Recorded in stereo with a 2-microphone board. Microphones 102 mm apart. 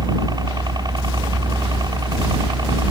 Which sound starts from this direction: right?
A helicopter, at 0.0 s.